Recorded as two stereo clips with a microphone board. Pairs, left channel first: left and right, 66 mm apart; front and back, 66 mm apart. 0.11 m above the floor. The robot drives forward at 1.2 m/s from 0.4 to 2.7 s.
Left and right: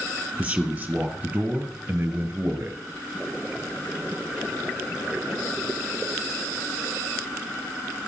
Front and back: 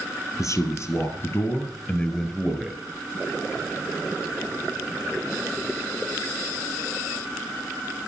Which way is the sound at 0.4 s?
20° right.